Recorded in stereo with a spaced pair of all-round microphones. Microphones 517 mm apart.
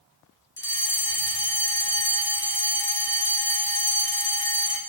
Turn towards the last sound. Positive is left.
turn(degrees=55)  # may be behind; listen again after turning